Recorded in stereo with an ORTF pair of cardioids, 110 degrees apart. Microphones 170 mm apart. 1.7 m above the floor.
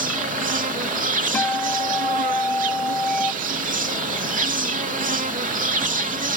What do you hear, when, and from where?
0.0 s an insect: 50° right
1.3 s a guitar: 10° left